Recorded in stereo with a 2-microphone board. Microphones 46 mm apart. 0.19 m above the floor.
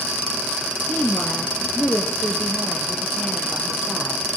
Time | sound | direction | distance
0.9 | a woman speaking | 45° left (ahead or behind) | 2 m